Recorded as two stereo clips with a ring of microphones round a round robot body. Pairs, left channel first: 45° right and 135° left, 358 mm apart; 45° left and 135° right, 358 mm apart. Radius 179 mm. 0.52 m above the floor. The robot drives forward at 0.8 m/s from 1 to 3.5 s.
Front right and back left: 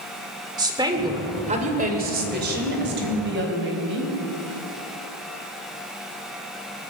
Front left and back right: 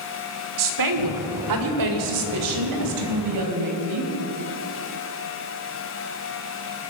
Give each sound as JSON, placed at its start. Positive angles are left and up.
{"t": 0.6, "sound": "a woman speaking", "azimuth_deg": -150, "distance_m": 1.6}